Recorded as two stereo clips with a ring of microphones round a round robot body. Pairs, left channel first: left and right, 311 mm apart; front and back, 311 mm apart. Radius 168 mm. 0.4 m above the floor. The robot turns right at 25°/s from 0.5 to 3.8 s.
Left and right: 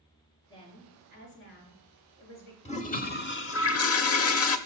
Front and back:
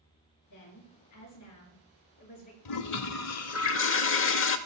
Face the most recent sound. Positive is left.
turn(degrees=50)